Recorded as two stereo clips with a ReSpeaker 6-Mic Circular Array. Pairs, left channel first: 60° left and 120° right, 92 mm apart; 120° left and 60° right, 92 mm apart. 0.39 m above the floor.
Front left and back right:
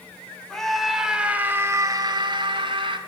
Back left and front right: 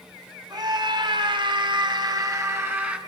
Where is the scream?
25° right, 2 m; by 3.0 s 130° right, 1.8 m.